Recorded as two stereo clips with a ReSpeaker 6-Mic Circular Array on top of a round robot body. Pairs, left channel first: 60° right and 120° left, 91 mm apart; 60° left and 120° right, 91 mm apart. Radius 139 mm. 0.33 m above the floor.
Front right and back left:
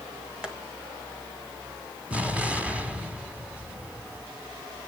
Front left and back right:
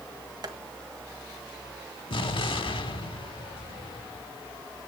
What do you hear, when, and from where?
0.4 s tapping: 160° right, 2.5 m
2.1 s an explosion: 45° left, 1.8 m